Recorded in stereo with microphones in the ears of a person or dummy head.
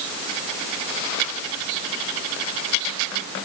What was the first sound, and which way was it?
Only background noise.